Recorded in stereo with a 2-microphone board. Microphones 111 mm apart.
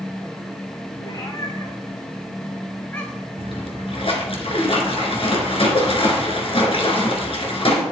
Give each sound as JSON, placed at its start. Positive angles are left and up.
{"t": 1.0, "sound": "a cat meowing", "side_deg": 35, "distance_m": 3.0}
{"t": 3.4, "sound": "a splash", "side_deg": 55, "distance_m": 2.0}